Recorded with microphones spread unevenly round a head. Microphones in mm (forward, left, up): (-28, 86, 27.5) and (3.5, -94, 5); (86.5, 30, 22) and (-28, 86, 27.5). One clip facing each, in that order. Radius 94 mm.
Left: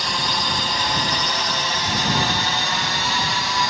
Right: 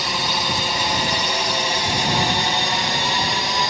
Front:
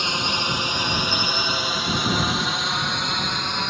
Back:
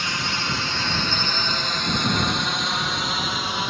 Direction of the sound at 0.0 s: 25° right.